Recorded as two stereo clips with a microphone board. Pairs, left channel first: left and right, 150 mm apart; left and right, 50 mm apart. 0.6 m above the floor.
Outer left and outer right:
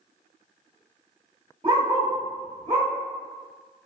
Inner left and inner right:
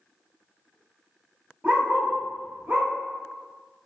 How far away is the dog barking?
About 0.8 m.